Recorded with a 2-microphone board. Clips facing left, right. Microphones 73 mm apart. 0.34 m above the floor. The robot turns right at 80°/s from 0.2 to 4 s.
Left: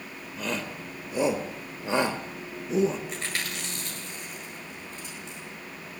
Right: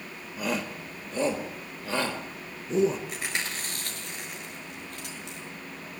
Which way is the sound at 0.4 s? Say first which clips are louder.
Right 2 dB; 10° right (ahead or behind).